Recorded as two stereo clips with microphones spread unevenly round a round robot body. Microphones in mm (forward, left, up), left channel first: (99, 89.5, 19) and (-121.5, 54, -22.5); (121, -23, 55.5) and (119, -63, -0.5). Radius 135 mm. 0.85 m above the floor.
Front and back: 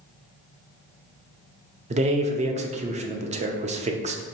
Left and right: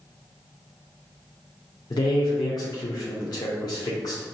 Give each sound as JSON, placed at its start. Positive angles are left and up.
{"t": 1.9, "sound": "a man speaking", "azimuth_deg": 150, "distance_m": 0.5}